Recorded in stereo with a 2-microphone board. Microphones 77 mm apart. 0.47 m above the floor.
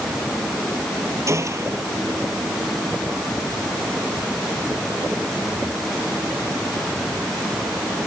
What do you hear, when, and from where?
1.3 s a gunshot: 40° right (ahead or behind)